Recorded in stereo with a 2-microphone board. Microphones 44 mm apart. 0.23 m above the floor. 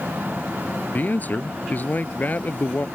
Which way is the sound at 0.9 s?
40° left (ahead or behind).